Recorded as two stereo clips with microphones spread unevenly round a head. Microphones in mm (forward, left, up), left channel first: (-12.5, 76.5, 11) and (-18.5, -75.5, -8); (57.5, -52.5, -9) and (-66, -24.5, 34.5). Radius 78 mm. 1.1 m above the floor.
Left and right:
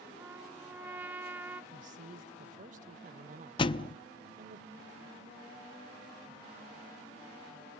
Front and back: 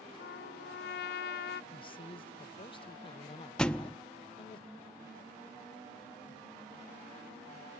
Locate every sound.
0.2 s a trumpet: 10° right, 0.5 m
1.7 s a man speaking: 55° right, 0.9 m
3.6 s a thud: 95° left, 0.5 m